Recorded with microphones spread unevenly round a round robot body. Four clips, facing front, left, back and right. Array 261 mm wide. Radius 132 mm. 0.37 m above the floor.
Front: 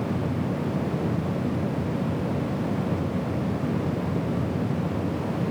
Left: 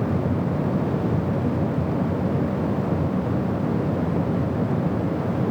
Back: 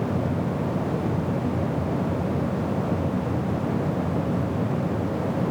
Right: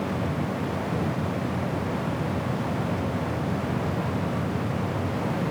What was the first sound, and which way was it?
Only background noise.